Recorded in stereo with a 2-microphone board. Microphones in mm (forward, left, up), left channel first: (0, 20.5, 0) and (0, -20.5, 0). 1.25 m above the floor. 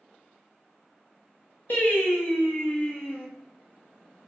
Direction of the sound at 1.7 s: 40° left (ahead or behind).